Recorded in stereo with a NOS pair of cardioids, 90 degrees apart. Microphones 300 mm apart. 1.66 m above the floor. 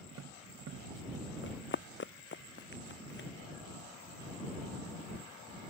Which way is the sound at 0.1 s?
55° right.